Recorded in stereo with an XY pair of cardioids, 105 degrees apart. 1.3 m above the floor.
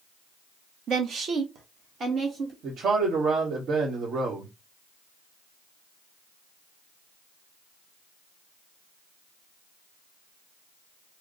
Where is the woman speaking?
70° right, 0.6 m; by 2.5 s 50° right, 1.7 m.